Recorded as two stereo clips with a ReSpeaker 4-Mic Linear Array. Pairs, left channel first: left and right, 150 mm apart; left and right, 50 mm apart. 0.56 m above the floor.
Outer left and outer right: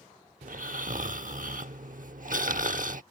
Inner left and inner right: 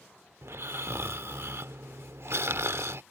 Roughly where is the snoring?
Right.